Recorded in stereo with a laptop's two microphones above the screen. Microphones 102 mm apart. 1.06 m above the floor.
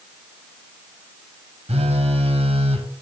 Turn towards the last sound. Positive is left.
turn(degrees=-85)